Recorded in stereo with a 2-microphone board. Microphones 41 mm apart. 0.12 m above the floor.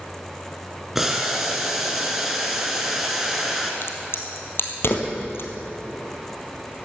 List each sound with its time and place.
0.9 s boiling: 5° right (ahead or behind), 2 m
3.8 s a crack: 65° left (ahead or behind), 1.9 m